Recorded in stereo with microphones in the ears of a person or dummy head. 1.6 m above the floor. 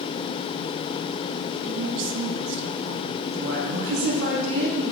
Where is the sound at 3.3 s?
80° right, 3.5 m.